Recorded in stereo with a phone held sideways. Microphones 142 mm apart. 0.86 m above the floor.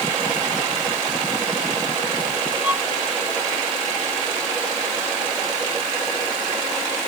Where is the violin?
10° right (ahead or behind).